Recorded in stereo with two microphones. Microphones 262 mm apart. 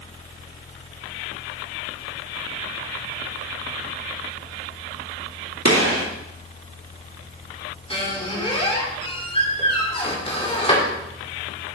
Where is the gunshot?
65° right (ahead or behind), 2 m.